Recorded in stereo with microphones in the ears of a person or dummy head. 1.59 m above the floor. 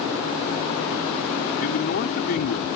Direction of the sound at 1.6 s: 55° left (ahead or behind).